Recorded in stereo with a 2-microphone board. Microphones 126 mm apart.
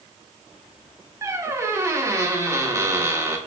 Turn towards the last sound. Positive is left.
turn(degrees=-20)  # may be behind; listen again after turning